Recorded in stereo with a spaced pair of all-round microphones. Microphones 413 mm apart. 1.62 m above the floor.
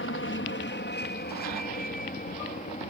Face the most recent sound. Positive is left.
turn(degrees=15)  # may be behind; listen again after turning